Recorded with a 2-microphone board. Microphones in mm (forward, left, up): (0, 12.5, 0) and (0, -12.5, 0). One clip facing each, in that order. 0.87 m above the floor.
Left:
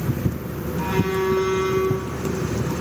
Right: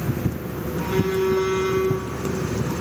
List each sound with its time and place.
0.8 s a phone buzzing: 60° left (ahead or behind), 7.5 m